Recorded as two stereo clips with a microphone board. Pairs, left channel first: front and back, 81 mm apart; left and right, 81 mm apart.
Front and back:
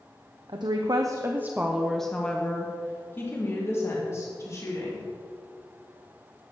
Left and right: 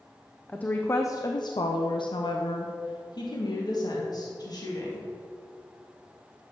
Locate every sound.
0.5 s a woman speaking: 165° left, 0.9 m; by 5.1 s 50° left, 3 m